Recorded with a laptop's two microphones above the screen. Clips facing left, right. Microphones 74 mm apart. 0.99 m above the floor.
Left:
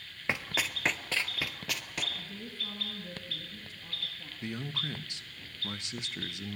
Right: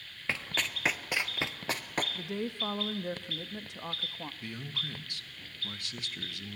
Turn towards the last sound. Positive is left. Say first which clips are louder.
# left 8 dB
turn(degrees=20)  # may be behind; listen again after turning